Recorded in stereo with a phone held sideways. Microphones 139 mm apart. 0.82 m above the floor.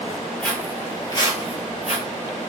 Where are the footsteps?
10° left (ahead or behind), 1.3 m; by 2.0 s 55° left (ahead or behind), 1.4 m.